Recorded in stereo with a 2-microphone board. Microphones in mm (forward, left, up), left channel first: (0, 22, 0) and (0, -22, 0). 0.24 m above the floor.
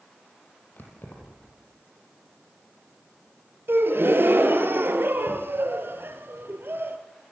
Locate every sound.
0.8 s keys jangling: 50° left (ahead or behind), 7 m
3.7 s a gasp: 60° right (ahead or behind), 3 m